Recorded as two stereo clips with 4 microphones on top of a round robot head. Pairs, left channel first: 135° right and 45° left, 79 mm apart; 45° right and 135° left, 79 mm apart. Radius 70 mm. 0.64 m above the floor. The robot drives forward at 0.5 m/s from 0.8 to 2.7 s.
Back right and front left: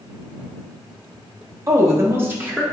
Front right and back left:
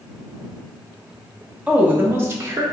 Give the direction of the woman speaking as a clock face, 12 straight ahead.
10 o'clock.